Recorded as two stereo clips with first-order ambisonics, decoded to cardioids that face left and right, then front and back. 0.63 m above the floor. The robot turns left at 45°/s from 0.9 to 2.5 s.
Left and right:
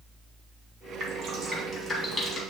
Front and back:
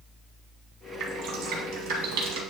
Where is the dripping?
140° right, 1.8 m; by 2.4 s 155° left, 1.8 m.